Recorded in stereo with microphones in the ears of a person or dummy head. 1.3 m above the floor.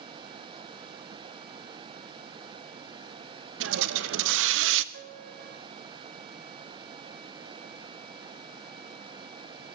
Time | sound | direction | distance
3.6 | a hiss | 75° right (ahead or behind) | 0.8 m
4.9 | a piano | 60° right (ahead or behind) | 1.4 m